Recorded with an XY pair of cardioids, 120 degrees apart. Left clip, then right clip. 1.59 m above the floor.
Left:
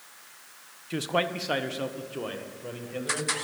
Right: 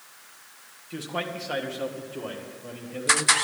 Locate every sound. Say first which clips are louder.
0.9 s a man speaking: left 4 dB; 45° left, 0.7 m; by 3.4 s 20° left, 2 m